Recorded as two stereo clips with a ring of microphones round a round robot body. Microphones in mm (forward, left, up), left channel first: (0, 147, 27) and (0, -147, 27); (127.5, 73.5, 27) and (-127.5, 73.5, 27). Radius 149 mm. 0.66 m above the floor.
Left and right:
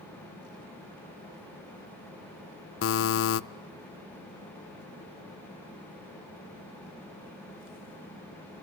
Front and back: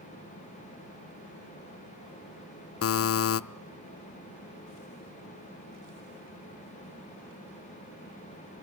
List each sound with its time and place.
2.8 s a buzzer: 40° left, 0.6 m